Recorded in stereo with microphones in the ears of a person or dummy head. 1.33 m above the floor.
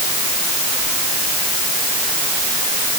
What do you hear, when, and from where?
Only background noise.